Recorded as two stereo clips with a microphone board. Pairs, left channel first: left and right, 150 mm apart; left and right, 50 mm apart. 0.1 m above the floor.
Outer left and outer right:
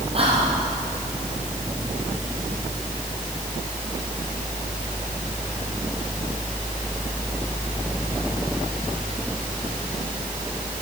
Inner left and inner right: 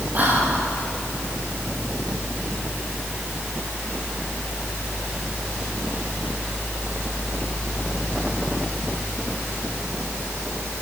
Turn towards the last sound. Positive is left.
turn(degrees=-40)  # may be behind; listen again after turning